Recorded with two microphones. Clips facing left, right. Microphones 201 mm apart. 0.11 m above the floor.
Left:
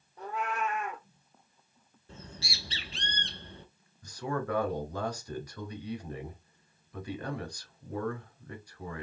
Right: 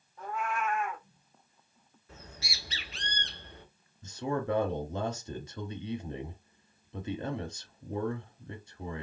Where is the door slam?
No door slam in this recording.